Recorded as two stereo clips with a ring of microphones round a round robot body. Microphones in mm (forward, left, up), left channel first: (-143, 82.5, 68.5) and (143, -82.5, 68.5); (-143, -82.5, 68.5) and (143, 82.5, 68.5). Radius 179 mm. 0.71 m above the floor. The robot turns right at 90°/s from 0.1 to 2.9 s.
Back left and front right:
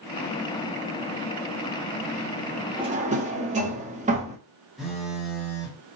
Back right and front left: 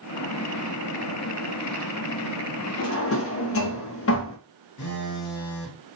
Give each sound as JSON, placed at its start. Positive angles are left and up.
{"t": 2.8, "sound": "a drawer", "azimuth_deg": -110, "distance_m": 0.7}
{"t": 4.8, "sound": "a phone buzzing", "azimuth_deg": -120, "distance_m": 1.0}